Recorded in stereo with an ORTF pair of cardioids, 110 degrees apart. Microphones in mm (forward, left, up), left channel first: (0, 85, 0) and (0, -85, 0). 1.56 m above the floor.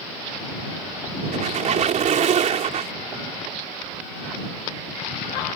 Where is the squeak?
50° right.